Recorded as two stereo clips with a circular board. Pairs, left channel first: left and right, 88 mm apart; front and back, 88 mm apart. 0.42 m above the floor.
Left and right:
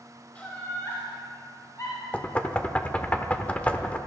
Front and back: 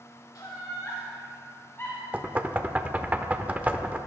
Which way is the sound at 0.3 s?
20° left.